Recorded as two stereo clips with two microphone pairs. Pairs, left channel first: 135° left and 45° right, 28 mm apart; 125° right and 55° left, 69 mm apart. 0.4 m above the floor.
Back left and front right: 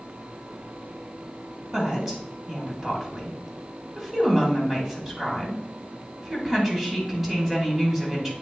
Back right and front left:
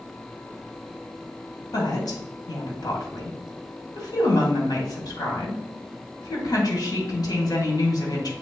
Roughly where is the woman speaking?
Behind right.